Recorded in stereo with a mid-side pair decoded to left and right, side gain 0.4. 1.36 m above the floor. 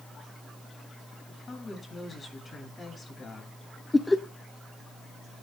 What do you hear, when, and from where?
1.3 s a woman speaking: 40° left, 7 m
3.9 s laughter: 20° left, 1.3 m